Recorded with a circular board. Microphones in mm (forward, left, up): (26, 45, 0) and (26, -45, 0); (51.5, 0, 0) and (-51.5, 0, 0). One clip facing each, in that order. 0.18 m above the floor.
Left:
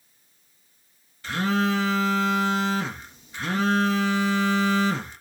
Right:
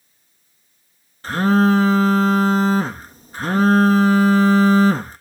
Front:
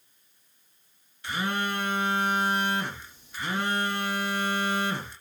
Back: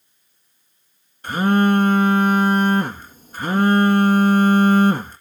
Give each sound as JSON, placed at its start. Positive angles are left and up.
{"t": 1.2, "sound": "a phone buzzing", "azimuth_deg": -135, "distance_m": 1.2}